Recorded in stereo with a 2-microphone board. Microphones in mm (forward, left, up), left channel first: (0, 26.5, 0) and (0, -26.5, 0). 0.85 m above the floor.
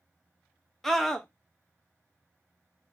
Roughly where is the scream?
Centre.